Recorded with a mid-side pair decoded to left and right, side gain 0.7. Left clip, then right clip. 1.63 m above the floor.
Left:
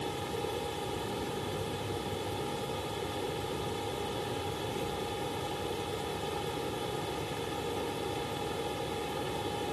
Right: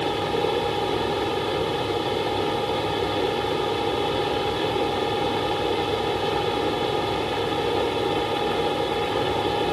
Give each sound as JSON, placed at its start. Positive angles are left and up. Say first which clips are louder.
{"t": 0.0, "sound": "a fan", "louder": "right 12 dB", "azimuth_deg": -50}